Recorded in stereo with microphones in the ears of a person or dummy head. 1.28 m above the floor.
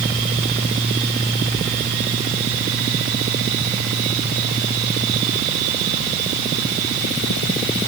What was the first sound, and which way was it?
Only background noise.